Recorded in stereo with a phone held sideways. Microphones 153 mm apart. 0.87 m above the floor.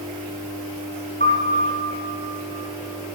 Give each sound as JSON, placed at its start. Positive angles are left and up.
{"t": 1.2, "sound": "a piano", "side_deg": 50, "distance_m": 1.8}